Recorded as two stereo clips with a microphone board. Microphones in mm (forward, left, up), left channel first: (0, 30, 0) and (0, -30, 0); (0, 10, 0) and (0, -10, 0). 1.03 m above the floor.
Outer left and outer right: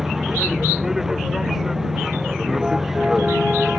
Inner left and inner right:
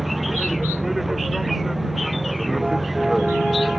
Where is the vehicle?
5° right (ahead or behind).